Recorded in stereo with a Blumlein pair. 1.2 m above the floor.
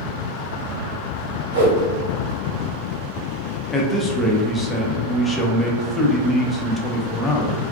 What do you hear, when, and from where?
1.5 s a whoosh: 70° right, 1.0 m
3.7 s a man speaking: 15° left, 0.6 m